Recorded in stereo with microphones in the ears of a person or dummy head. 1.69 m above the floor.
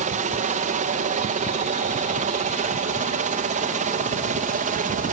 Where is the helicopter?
35° right (ahead or behind).